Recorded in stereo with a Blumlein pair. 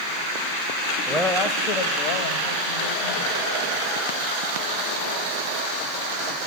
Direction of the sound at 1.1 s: Straight ahead.